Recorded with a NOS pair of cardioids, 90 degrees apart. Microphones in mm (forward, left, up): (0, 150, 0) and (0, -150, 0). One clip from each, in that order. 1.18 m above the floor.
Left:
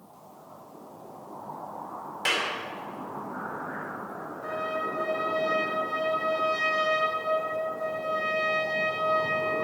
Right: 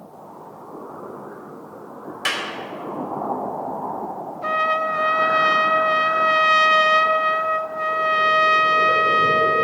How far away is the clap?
About 3 m.